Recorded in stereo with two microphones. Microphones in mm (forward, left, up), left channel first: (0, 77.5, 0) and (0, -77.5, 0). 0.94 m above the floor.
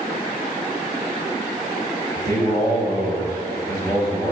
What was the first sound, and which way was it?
A man speaking, 25° left (ahead or behind).